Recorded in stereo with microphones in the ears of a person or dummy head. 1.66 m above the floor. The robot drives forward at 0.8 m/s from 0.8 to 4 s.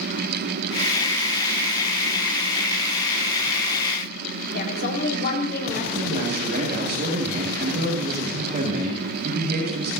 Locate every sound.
4.5 s a woman speaking: 55° left (ahead or behind), 4.5 m
6.0 s a man speaking: 45° right (ahead or behind), 6.5 m